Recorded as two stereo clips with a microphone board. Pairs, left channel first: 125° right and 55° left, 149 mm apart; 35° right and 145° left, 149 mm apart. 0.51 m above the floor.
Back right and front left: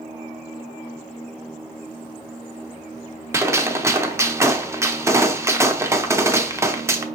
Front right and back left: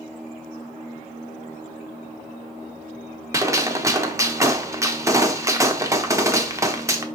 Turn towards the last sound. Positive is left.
turn(degrees=105)